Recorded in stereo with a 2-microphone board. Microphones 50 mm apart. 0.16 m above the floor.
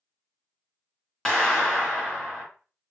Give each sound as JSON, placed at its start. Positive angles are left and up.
{"t": 1.2, "sound": "a clap", "side_deg": 10, "distance_m": 1.5}